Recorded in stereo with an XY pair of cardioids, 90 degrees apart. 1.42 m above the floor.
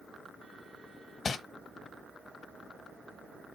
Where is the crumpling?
45° left, 1.5 m.